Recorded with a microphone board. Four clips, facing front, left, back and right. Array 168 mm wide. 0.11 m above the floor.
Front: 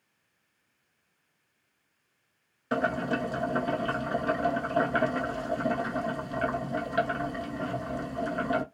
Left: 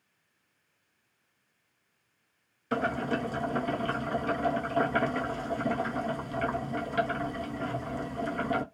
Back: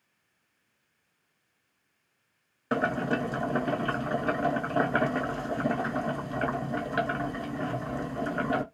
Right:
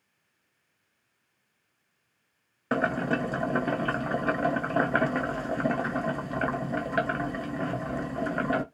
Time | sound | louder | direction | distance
2.7 | boiling | right 3 dB, back 1 dB | 110° right | 0.6 m